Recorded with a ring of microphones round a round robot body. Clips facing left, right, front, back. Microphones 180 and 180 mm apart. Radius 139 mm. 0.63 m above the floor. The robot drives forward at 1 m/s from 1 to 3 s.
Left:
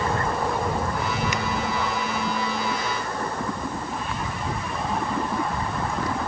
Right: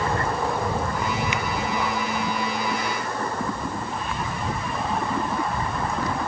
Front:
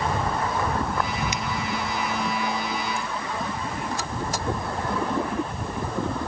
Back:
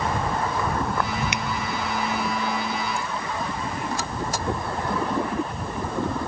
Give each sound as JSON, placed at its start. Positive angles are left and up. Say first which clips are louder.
{"t": 1.3, "sound": "a finger snap", "louder": "even, back 1 dB", "azimuth_deg": 155}